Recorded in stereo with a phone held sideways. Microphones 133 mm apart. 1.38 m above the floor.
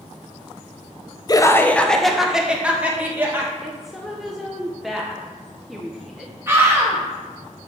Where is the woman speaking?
Centre (ahead or behind), 0.6 m.